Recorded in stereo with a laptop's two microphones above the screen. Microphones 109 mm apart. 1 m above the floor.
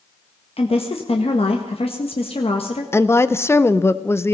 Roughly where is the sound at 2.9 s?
Left.